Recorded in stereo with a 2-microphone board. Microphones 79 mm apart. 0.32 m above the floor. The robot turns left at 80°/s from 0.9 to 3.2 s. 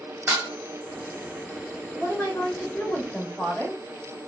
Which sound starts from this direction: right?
Dishes clattering, at 0.3 s.